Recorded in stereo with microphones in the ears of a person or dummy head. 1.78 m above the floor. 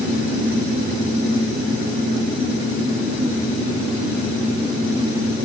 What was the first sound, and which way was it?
Only background noise.